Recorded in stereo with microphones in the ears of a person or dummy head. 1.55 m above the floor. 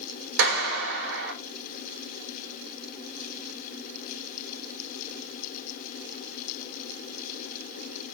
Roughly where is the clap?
Right.